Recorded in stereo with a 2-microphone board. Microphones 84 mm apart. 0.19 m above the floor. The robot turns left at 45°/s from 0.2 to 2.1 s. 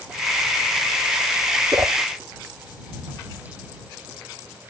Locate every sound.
1.7 s a whoosh: 40° right (ahead or behind); by 2.0 s 30° right (ahead or behind)